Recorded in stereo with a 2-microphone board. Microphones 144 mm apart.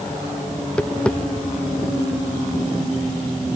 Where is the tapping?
5° left (ahead or behind).